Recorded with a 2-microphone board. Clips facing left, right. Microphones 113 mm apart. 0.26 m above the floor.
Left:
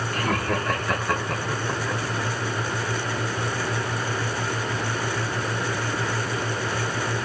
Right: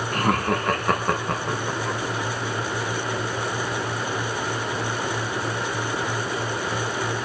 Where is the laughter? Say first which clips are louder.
Right 3 dB; 65° right (ahead or behind), 3.5 m; by 2.0 s 60° right (ahead or behind), 4.5 m.